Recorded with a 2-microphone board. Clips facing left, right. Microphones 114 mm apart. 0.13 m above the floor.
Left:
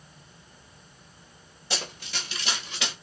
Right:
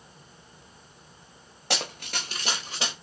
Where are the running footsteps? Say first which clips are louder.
Right 3 dB; 70° right (ahead or behind), 0.9 m; by 2.9 s 30° right (ahead or behind), 1.1 m.